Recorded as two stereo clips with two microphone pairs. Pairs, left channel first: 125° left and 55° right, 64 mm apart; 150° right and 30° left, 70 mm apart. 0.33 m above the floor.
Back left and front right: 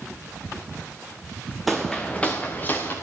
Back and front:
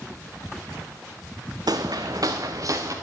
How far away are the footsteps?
About 1.3 m.